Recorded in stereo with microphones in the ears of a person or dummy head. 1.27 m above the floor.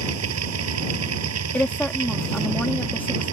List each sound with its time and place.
0.0 s a machine running: 75° right (ahead or behind)
1.5 s a woman speaking: 10° left (ahead or behind)